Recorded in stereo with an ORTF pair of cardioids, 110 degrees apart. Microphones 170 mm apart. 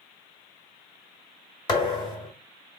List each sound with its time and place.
1.7 s a thud: 25° left, 1.7 m